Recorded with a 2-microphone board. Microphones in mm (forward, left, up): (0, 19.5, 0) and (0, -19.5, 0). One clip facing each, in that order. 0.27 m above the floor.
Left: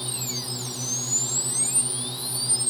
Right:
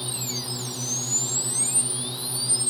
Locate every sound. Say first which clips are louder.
0.0 s a drone: right 1 dB; 10° right (ahead or behind)